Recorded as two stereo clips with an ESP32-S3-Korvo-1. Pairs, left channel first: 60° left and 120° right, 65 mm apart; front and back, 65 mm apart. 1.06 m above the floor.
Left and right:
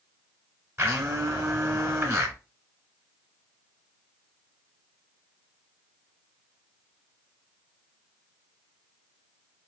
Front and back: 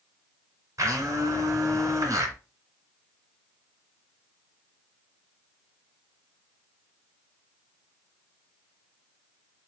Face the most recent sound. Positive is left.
turn(degrees=-160)